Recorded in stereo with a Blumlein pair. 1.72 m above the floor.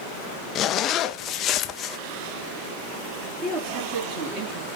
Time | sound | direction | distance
0.6 | a zipper | 30° left | 0.6 m
3.2 | a man speaking | 35° right | 3 m